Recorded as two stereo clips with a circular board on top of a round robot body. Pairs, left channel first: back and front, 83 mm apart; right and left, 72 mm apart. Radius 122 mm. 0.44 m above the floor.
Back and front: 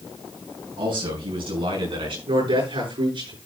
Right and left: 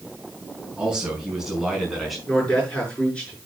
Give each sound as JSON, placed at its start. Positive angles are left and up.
{"t": 0.8, "sound": "a man speaking", "azimuth_deg": 10, "distance_m": 4.5}
{"t": 2.3, "sound": "a man speaking", "azimuth_deg": -15, "distance_m": 8.0}